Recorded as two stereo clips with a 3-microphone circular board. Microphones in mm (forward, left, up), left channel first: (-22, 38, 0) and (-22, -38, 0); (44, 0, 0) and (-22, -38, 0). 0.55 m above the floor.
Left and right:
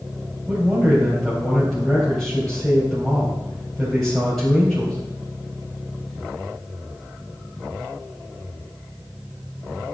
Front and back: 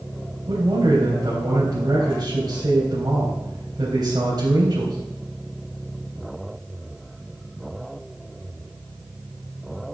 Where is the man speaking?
175° left, 3.5 m.